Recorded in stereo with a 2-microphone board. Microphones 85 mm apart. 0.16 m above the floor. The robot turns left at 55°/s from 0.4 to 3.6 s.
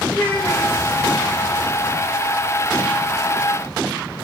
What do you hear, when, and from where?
0.1 s a child speaking: 20° left (ahead or behind), 6.5 m; by 0.8 s 40° left (ahead or behind), 6.5 m